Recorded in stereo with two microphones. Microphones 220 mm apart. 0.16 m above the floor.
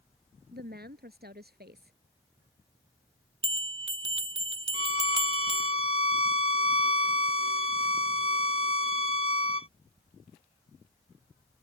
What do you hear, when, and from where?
0.5 s a woman speaking: 45° right (ahead or behind)
3.4 s a bell: 70° right (ahead or behind)
4.7 s a violin: 70° right (ahead or behind)